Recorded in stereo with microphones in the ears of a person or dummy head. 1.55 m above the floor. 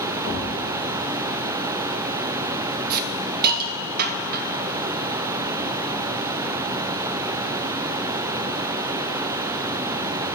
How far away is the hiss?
About 0.9 m.